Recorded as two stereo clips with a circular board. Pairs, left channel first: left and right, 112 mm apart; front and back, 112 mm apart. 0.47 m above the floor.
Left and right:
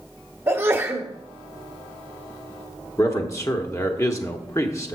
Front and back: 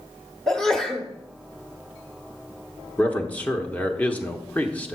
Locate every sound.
0.5 s a sneeze: 80° right, 1.1 m
3.0 s a man speaking: 65° left, 0.8 m